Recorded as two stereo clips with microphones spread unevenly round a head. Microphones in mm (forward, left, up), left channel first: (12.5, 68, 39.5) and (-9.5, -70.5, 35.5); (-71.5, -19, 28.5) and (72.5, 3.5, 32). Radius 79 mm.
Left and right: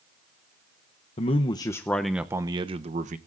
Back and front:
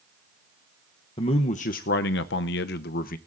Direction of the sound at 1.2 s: 130° left.